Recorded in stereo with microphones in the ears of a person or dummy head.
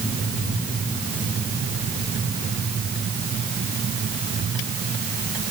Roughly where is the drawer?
No drawer in this recording.